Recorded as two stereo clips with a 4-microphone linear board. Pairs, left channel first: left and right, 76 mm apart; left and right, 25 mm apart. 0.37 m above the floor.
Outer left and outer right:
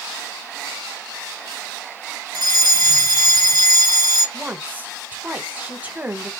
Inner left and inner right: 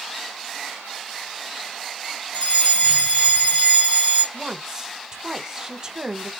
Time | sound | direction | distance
2.3 | a fire alarm | 50° left (ahead or behind) | 3 m
4.3 | a woman speaking | 20° right (ahead or behind) | 0.9 m